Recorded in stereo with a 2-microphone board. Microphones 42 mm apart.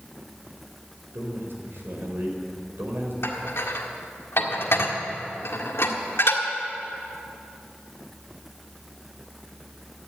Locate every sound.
1.1 s a man speaking: 65° right (ahead or behind), 3.5 m
3.2 s dishes clattering: 75° left (ahead or behind), 1.8 m